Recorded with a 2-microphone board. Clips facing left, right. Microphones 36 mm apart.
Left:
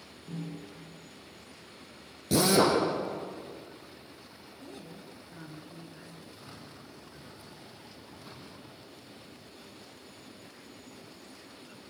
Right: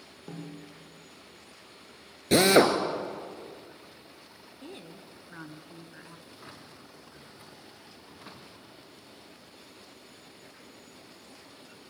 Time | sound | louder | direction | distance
0.3 | a snare drum | left 2 dB | 65° right (ahead or behind) | 7.5 m
2.3 | a drill | right 4 dB | 55° right (ahead or behind) | 2.5 m
4.6 | a woman speaking | right 1 dB | 35° right (ahead or behind) | 1.8 m
6.3 | a drawer | even | 35° right (ahead or behind) | 5.5 m